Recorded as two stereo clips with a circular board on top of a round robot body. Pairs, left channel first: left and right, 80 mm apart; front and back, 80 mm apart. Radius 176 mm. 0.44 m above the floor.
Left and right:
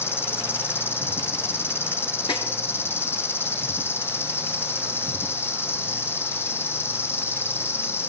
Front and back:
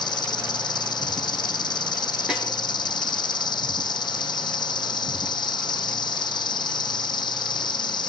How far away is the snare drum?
About 6 m.